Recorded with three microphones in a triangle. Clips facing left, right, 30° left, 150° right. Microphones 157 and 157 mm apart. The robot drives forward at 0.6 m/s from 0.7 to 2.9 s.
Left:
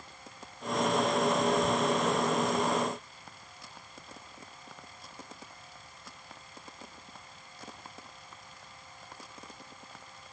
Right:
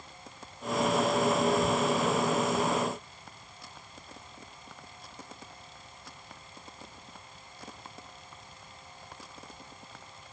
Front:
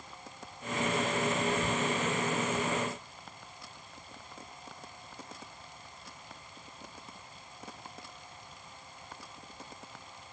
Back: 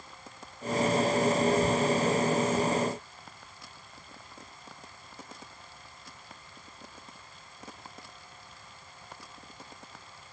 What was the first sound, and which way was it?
Only background noise.